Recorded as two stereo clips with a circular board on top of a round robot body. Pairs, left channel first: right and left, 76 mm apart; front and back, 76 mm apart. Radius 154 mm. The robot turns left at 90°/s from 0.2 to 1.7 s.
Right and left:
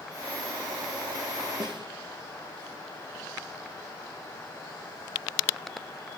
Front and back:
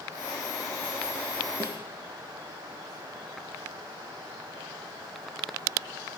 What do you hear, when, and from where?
1.6 s a snare drum: 125° left, 5.5 m; by 1.8 s 120° left, 5.5 m